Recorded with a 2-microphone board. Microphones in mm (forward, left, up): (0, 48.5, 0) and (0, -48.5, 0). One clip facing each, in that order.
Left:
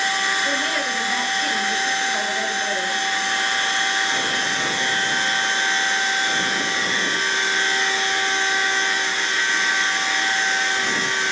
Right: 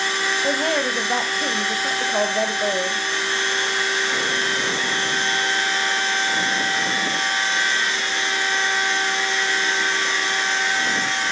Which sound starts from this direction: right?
A woman speaking, at 0.4 s.